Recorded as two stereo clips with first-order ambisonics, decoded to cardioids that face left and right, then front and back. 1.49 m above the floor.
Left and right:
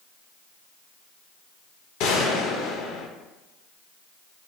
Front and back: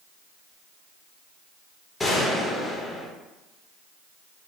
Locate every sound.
2.0 s a gunshot: 80° left, 0.7 m